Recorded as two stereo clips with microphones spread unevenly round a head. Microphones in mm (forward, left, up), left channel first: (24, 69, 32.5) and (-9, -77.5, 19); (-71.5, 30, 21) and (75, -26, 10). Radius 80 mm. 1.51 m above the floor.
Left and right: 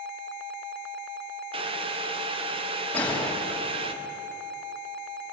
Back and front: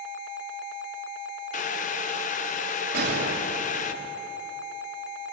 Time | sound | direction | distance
1.5 | boiling | 155° right | 1.2 m
2.9 | a gunshot | 5° right | 3 m